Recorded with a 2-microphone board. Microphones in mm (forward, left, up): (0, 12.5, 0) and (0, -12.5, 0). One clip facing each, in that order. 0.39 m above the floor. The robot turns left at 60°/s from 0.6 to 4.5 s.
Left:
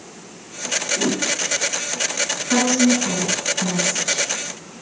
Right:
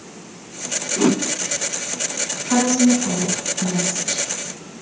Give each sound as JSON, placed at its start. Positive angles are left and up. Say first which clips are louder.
{"t": 1.0, "sound": "a whoosh", "louder": "right 8 dB", "side_deg": -75, "distance_m": 0.6}
{"t": 2.5, "sound": "a woman speaking", "louder": "right 1 dB", "azimuth_deg": -155, "distance_m": 3.5}